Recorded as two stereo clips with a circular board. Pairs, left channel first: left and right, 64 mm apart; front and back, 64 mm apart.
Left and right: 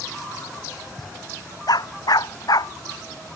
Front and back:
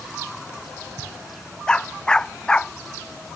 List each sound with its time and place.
1.7 s a dog barking: 80° left